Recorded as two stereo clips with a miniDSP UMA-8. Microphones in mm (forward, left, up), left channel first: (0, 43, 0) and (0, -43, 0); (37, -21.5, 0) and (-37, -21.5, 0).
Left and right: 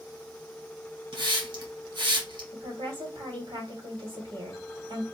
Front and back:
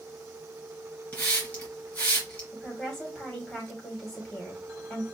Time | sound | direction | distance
1.1 | a hiss | 65° right | 3 m
2.5 | a woman speaking | 70° right | 2 m